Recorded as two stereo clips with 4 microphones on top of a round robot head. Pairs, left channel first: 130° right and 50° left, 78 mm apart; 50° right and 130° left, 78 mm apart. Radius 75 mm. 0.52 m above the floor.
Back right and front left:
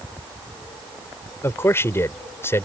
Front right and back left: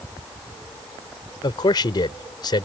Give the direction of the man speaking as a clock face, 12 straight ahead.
2 o'clock.